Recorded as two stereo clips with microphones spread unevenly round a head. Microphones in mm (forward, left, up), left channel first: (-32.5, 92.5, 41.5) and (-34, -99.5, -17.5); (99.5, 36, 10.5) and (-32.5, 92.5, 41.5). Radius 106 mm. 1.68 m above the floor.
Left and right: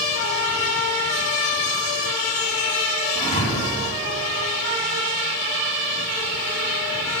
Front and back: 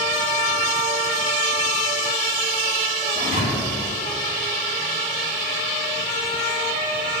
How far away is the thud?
About 4 m.